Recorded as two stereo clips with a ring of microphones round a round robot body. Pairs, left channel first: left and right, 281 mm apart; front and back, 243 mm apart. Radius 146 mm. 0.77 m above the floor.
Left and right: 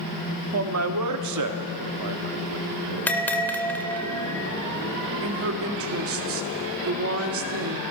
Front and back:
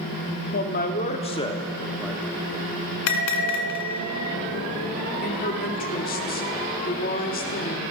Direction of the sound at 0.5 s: 50° right.